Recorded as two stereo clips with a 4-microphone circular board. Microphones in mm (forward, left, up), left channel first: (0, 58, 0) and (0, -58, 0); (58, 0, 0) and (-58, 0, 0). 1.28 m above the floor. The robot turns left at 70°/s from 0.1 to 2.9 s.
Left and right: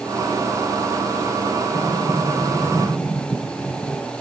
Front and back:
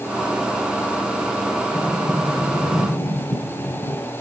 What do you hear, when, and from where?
1.7 s a sliding door: 80° left, 2.5 m; by 4.1 s straight ahead, 2.5 m